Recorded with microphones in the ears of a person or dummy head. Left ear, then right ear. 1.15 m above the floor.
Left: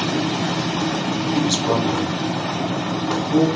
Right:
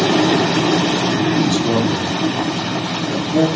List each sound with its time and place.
1.3 s a man speaking: 15° left (ahead or behind), 1.1 m